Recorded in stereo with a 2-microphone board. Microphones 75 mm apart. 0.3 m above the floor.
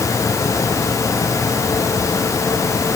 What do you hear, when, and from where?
Only background noise.